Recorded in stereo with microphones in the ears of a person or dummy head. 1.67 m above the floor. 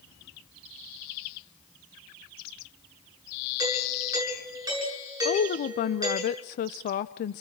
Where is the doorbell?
20° right (ahead or behind), 8 m.